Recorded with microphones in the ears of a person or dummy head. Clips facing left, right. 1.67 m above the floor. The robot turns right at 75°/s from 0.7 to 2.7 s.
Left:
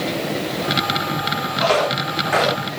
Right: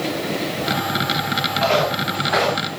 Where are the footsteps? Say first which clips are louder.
Left 1 dB; 75° left (ahead or behind), 6 m; by 2.7 s 15° left (ahead or behind), 5.5 m.